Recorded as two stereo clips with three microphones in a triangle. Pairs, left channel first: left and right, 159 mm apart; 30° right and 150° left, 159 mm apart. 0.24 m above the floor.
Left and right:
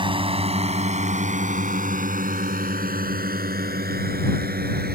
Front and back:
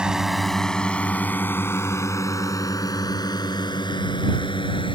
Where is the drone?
130° right; by 4.9 s 90° right.